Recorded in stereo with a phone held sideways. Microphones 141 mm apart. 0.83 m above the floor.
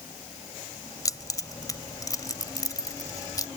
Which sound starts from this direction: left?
Keys jangling, at 1.1 s.